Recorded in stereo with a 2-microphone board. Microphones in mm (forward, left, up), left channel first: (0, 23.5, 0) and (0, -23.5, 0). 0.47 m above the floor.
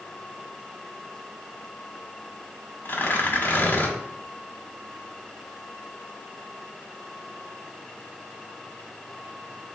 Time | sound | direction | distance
2.9 | tearing paper | 40° left (ahead or behind) | 0.9 m